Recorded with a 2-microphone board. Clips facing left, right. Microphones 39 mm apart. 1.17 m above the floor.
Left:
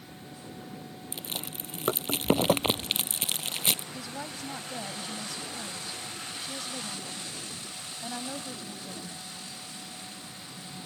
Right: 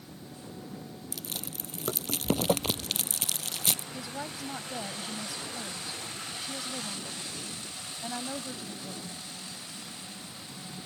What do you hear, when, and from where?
1.1 s chewing: 30° left (ahead or behind)
3.9 s a woman speaking: 5° right (ahead or behind)